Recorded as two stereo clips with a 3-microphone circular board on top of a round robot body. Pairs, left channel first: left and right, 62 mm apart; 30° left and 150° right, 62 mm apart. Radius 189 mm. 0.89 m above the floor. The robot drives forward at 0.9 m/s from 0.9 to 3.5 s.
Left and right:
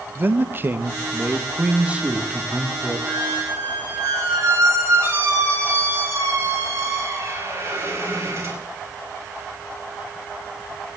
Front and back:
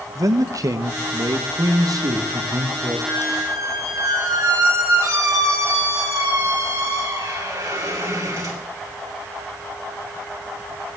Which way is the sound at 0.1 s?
145° right.